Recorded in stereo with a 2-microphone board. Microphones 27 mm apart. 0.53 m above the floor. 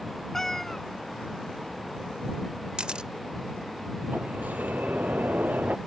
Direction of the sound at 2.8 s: 35° right (ahead or behind).